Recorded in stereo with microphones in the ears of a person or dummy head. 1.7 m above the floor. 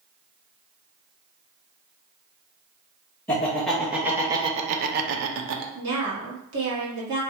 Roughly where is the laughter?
Centre.